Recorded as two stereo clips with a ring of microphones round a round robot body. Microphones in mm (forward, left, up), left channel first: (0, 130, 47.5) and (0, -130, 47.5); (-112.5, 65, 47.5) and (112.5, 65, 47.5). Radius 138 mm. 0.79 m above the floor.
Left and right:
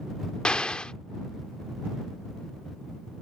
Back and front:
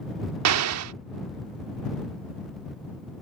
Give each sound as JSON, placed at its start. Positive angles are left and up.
{"t": 0.5, "sound": "an explosion", "azimuth_deg": 5}